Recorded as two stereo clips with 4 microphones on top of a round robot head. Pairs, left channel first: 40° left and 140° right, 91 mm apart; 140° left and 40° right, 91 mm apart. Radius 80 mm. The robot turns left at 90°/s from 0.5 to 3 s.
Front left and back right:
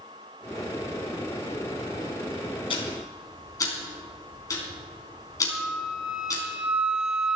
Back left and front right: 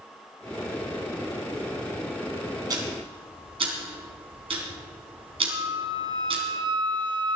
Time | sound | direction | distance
2.7 | ticking | 10° left | 3.5 m
5.5 | a flute | 60° right | 1.4 m